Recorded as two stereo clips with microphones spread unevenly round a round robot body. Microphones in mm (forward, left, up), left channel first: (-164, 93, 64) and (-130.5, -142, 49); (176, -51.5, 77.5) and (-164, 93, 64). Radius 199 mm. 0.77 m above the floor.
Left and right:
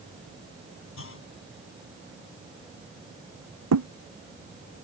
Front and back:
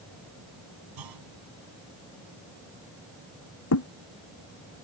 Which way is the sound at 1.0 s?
125° left.